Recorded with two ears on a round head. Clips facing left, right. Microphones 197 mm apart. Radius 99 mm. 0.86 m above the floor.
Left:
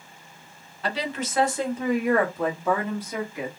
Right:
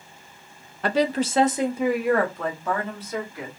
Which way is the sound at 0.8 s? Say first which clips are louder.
Right 7 dB; 45° right (ahead or behind).